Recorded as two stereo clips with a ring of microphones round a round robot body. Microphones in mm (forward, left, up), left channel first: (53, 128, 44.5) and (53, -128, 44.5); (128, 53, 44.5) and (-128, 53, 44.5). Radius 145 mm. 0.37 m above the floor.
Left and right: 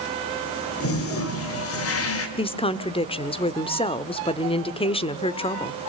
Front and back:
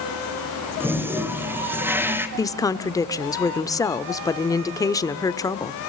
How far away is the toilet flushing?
About 2.5 m.